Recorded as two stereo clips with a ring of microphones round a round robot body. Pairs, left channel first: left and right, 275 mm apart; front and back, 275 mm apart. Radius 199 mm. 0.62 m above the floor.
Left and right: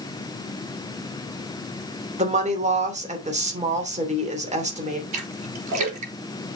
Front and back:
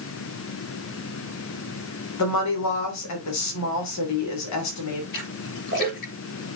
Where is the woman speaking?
25° right, 3 m.